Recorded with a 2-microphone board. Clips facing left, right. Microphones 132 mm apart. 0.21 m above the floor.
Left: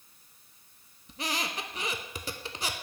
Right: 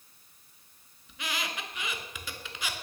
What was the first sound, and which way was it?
A squeak, 40° left (ahead or behind).